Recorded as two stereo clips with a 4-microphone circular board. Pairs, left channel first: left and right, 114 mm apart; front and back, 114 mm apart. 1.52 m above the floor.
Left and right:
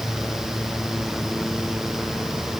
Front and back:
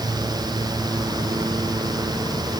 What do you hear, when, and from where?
Only background noise.